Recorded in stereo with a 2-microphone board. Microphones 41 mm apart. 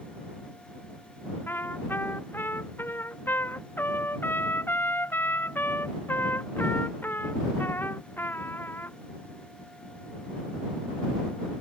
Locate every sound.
1.5 s a trumpet: 55° left (ahead or behind)